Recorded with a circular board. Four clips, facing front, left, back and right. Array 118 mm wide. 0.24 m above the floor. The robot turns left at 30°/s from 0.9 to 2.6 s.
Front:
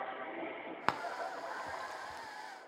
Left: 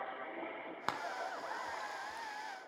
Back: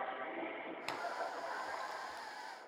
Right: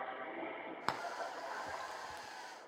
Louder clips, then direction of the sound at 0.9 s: Left 1 dB, front 5 dB; 5° right.